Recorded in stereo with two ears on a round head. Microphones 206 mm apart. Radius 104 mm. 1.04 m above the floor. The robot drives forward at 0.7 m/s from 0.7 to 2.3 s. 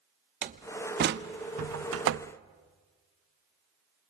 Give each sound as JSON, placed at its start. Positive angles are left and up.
{"t": 0.4, "sound": "a door slam", "side_deg": -35, "distance_m": 0.9}